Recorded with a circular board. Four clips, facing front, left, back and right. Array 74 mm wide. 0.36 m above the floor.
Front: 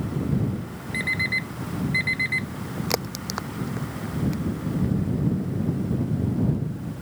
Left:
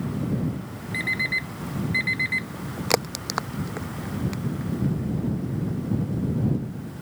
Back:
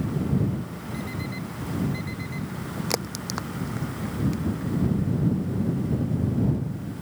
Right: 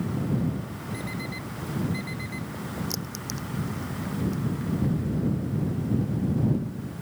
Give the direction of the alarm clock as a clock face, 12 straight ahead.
10 o'clock.